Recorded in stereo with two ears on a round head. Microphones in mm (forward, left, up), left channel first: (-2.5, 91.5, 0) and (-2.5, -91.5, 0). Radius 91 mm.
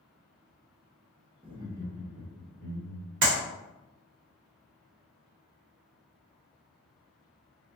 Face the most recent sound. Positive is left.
turn(degrees=-60)  # may be behind; listen again after turning